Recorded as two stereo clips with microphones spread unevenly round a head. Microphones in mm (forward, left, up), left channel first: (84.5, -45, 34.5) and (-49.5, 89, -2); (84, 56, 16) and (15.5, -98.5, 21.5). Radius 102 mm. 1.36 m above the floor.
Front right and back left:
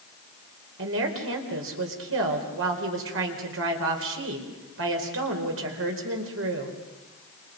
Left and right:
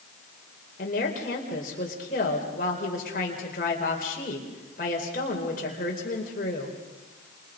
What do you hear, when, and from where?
0.8 s a woman speaking: 120° left, 4.5 m